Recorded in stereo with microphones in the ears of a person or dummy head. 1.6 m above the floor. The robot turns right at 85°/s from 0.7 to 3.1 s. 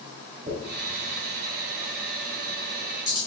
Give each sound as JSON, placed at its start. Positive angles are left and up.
{"t": 0.5, "sound": "a dropped coin", "side_deg": -40, "distance_m": 2.0}